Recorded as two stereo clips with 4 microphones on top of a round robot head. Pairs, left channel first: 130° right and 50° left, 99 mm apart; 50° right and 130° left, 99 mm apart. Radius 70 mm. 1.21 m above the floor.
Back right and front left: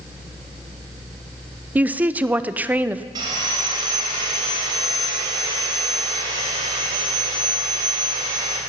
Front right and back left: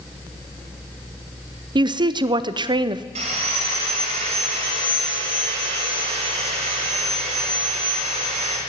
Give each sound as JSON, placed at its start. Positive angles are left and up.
{"t": 1.8, "sound": "a woman speaking", "azimuth_deg": 120, "distance_m": 0.5}
{"t": 3.1, "sound": "sawing", "azimuth_deg": 100, "distance_m": 2.0}